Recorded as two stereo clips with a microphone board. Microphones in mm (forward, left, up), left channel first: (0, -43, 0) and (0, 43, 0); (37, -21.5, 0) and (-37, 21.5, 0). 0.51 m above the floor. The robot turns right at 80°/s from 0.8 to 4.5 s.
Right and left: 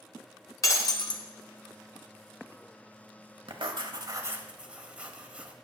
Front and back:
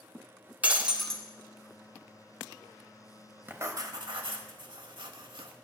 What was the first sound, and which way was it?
Breaking glass, 140° right.